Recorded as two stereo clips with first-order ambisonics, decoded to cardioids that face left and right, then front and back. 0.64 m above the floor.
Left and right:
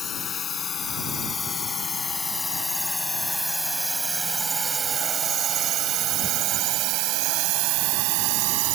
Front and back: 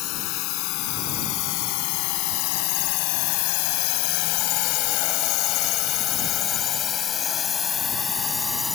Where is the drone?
25° left; by 8.8 s 80° right.